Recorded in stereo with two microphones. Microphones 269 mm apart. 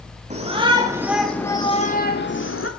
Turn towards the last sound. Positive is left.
turn(degrees=55)  # may be behind; listen again after turning